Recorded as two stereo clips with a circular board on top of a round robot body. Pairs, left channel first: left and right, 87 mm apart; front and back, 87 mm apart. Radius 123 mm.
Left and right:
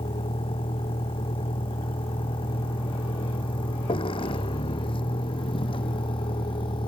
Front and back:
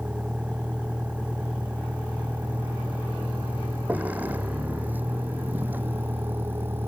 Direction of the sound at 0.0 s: 100° left.